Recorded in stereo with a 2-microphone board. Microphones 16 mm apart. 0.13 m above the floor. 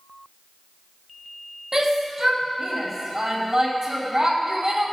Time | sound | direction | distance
1.7 | a shout | 35° right (ahead or behind) | 3.5 m